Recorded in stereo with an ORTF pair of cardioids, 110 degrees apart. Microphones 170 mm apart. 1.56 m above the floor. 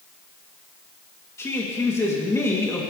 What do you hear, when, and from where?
1.4 s a man speaking: 15° left, 3 m